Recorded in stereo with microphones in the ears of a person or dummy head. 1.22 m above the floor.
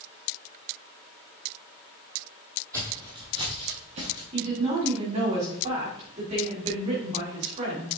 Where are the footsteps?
15° right (ahead or behind), 3 m; by 4.2 s 50° right (ahead or behind), 2.5 m.